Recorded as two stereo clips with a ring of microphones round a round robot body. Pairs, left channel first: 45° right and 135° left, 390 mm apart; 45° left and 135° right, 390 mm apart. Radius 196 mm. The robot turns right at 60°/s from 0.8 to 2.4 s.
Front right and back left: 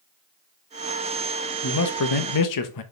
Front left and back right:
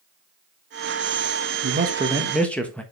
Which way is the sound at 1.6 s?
85° right.